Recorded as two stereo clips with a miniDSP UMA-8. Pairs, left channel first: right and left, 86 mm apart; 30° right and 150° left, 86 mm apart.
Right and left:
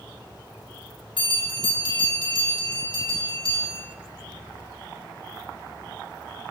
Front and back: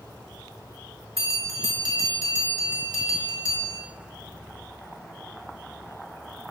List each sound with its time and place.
1.2 s a bell: 80° right, 4.5 m